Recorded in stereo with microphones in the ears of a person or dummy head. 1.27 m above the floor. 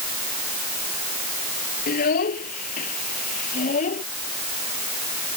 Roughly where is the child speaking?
Left.